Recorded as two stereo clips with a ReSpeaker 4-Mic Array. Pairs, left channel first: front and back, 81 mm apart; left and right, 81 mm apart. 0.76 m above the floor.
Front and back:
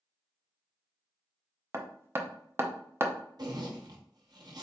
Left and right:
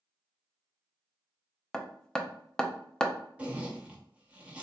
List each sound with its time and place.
1.7 s hammering: 160° left, 0.5 m
3.4 s a zipper: 160° right, 0.8 m